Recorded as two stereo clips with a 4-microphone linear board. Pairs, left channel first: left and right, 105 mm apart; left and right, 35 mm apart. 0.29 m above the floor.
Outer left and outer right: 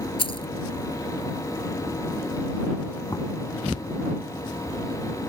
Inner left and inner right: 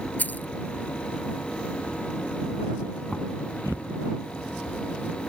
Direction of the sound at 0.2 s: 55° left (ahead or behind).